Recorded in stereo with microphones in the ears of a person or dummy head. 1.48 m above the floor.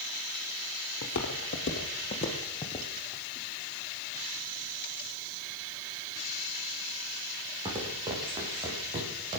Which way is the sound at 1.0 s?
55° left (ahead or behind).